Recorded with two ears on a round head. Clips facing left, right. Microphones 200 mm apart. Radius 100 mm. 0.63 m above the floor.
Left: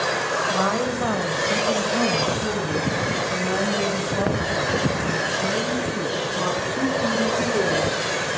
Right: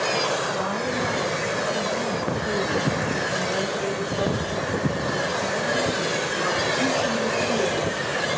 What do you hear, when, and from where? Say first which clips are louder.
0.5 s a woman speaking: left 3 dB; 70° left (ahead or behind), 3 m; by 8.0 s 40° left (ahead or behind), 6.5 m